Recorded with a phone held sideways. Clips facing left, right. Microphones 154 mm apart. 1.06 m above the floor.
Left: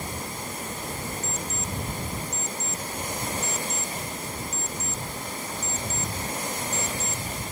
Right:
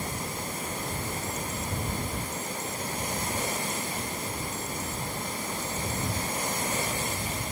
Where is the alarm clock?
55° right (ahead or behind).